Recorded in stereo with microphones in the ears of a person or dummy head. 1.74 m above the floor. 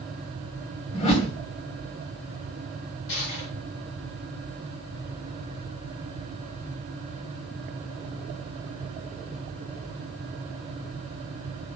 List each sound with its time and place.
0.9 s a whoosh: 35° left (ahead or behind), 2.5 m
3.1 s crushing: 65° left (ahead or behind), 7.5 m